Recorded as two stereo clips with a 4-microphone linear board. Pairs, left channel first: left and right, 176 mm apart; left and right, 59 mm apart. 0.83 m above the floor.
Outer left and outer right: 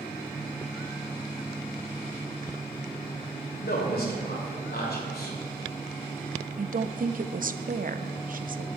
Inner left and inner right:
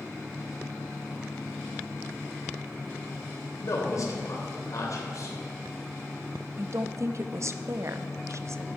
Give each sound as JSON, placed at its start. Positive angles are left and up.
{"t": 3.6, "sound": "a man speaking", "side_deg": 60, "distance_m": 2.5}
{"t": 6.6, "sound": "a woman speaking", "side_deg": -50, "distance_m": 0.6}